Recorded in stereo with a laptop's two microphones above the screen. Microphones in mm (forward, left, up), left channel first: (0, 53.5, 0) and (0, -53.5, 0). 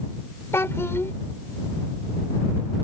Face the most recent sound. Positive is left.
turn(degrees=20)  # may be behind; listen again after turning